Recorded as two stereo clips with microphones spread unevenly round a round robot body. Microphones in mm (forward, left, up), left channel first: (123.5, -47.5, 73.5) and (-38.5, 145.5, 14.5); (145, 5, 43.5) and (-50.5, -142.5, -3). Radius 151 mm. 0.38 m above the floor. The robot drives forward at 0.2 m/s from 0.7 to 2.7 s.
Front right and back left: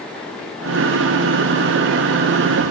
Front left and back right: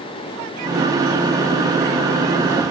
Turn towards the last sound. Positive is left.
No sound to turn to.